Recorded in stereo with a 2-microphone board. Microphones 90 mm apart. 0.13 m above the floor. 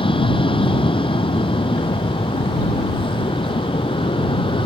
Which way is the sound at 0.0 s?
75° left (ahead or behind).